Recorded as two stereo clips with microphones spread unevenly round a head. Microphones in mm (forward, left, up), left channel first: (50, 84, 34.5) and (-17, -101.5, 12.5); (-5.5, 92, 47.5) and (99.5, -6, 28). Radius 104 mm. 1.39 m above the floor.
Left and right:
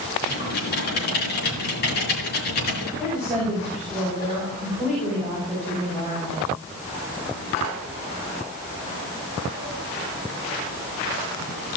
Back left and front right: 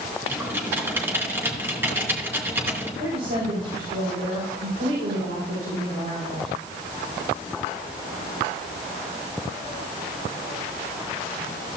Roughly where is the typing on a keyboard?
Ahead left.